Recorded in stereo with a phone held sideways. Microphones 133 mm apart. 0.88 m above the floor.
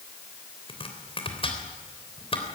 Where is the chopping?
45° left (ahead or behind), 3.5 m.